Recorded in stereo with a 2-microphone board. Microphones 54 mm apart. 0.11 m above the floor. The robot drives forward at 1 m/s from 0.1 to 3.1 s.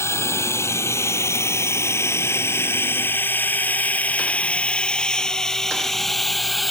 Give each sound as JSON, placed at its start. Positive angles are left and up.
{"t": 0.0, "sound": "a drone", "side_deg": 60}